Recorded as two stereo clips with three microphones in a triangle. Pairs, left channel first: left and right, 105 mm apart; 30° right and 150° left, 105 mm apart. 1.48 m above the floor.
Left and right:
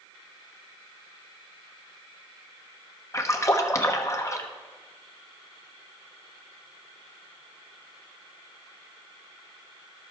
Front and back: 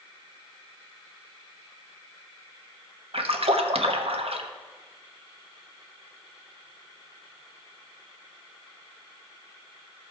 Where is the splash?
145° left, 1.0 m.